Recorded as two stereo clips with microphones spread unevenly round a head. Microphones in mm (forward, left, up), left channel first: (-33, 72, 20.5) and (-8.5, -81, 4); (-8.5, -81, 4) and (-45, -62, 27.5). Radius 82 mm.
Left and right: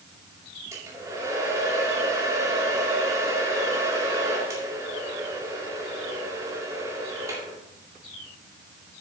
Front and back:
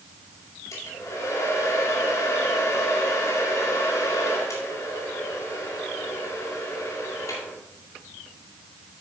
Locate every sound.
0.7 s a hair dryer: 5° right, 2 m